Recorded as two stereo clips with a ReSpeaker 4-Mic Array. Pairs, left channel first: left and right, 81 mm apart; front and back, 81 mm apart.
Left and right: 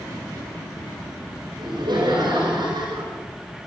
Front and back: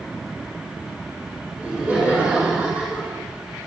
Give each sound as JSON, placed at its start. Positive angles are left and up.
{"t": 1.6, "sound": "laughter", "azimuth_deg": -105, "distance_m": 5.0}